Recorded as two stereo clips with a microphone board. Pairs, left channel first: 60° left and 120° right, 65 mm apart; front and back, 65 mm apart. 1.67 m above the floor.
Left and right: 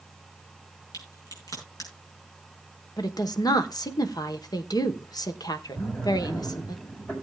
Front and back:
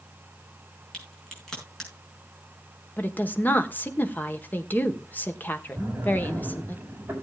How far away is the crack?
About 5.5 m.